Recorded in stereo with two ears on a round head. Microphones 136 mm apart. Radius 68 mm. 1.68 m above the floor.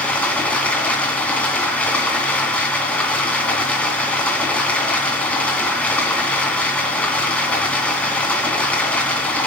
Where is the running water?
10° left (ahead or behind), 2 m.